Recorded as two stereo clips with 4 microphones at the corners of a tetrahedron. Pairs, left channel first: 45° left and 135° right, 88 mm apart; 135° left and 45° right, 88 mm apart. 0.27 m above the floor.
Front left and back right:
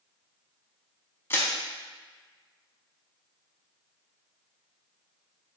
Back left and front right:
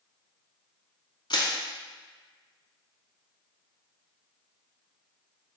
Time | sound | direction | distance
1.3 | crushing | 105° left | 0.6 m